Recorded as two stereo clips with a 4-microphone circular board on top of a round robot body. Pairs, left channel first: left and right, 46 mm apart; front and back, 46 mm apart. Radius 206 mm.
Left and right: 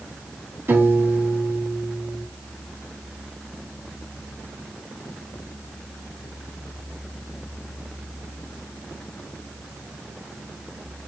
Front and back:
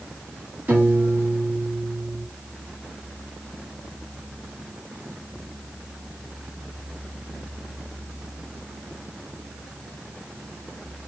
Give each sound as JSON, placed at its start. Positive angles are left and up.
{"t": 0.7, "sound": "a piano", "azimuth_deg": -130, "distance_m": 2.0}